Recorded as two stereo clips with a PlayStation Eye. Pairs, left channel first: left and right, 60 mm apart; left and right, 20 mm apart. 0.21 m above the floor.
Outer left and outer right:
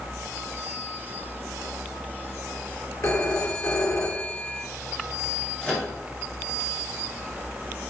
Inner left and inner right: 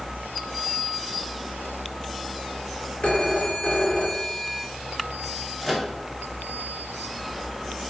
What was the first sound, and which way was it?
A phone ringing, 60° left (ahead or behind).